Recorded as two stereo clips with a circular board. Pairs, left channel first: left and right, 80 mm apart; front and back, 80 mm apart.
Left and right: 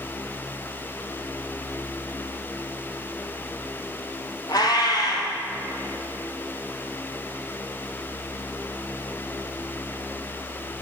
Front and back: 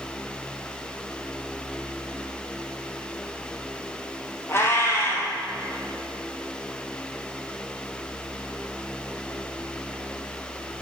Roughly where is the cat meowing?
Ahead left.